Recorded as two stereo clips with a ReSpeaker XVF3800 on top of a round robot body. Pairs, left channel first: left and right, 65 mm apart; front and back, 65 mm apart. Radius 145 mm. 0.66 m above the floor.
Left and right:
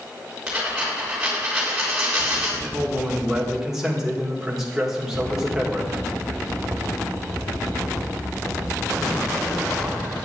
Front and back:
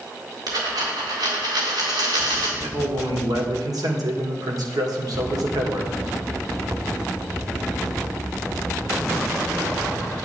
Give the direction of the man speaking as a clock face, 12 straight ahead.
6 o'clock.